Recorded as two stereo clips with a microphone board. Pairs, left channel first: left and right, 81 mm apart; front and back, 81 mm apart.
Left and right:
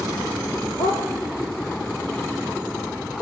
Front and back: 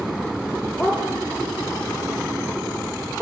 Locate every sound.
0.8 s a dog barking: 75° left, 4 m; by 3.2 s 100° left, 4.5 m